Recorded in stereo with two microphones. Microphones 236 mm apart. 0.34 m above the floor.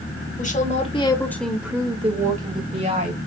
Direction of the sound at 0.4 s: 35° left (ahead or behind).